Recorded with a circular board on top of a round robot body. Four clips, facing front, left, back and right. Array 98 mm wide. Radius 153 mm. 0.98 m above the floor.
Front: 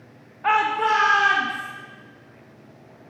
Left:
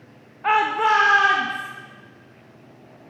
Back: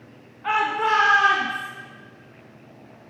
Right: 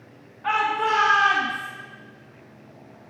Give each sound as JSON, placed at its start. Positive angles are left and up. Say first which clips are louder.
{"t": 0.4, "sound": "a shout", "louder": "left 4 dB, front 2 dB", "azimuth_deg": 40, "distance_m": 0.8}